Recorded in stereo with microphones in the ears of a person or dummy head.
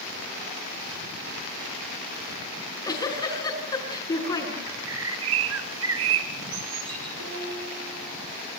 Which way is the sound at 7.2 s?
85° right.